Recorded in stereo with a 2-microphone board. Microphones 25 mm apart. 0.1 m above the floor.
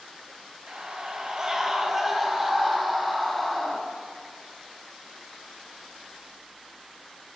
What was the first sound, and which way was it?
A scream, 40° right (ahead or behind).